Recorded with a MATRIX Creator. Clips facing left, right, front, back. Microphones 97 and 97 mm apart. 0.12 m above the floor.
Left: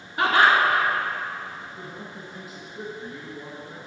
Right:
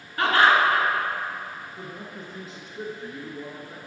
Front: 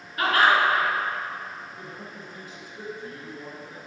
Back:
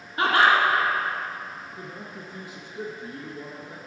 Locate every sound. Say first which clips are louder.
0.2 s laughter: even, back 1 dB; 145° left, 1.9 m
1.8 s a man speaking: even, back 1 dB; 165° left, 1.5 m